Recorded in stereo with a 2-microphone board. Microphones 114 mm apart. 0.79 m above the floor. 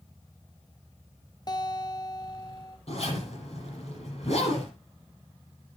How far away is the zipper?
About 9.5 m.